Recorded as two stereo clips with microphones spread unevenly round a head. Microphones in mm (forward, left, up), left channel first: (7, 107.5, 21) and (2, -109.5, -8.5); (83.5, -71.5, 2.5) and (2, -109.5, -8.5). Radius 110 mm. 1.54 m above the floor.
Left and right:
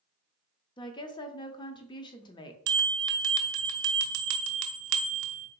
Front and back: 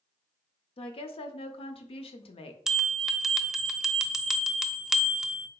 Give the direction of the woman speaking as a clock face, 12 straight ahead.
11 o'clock.